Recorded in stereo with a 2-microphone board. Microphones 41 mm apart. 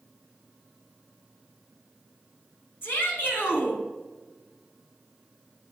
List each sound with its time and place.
2.8 s a shout: 55° left (ahead or behind), 3 m